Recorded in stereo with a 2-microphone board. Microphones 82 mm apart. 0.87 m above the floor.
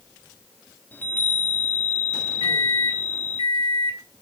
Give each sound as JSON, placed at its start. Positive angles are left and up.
{"t": 0.9, "sound": "a chime", "side_deg": 20, "distance_m": 1.3}
{"t": 2.4, "sound": "a microwave", "side_deg": 80, "distance_m": 1.7}